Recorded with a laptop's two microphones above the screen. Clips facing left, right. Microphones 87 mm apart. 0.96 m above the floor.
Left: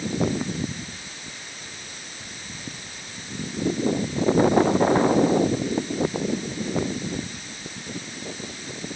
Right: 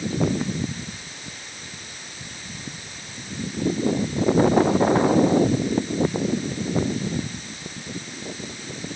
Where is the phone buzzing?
No phone buzzing in this recording.